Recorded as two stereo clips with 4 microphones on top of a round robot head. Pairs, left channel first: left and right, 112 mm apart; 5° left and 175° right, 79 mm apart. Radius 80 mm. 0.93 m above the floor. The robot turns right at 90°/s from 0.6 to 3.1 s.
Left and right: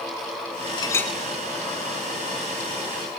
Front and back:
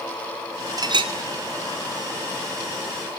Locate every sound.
0.8 s a clink: 145° left, 2 m; by 1.1 s 175° left, 2 m